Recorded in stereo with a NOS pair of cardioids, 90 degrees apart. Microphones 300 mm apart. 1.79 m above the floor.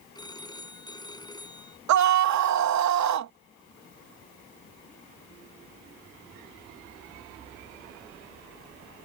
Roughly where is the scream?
Ahead right.